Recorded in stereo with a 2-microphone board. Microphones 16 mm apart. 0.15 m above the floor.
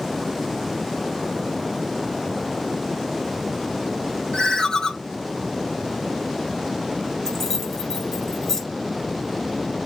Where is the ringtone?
50° left (ahead or behind), 4 m.